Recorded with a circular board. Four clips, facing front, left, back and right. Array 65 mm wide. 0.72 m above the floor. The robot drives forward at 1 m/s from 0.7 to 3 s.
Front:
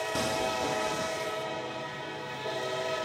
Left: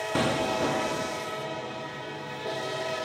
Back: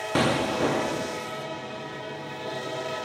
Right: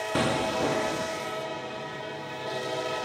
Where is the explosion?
175° right; by 1.2 s straight behind.